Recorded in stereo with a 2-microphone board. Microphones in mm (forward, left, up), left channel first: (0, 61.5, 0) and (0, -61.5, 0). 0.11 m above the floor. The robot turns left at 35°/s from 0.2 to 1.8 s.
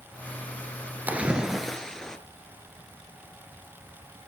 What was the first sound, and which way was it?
A splash, 15° right (ahead or behind).